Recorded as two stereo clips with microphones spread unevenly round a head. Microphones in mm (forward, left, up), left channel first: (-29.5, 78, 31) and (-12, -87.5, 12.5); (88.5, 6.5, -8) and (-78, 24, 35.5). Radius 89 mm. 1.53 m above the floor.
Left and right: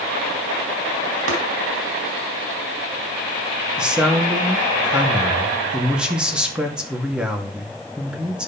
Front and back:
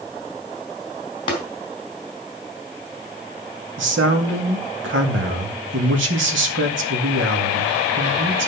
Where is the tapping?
75° right, 3 m.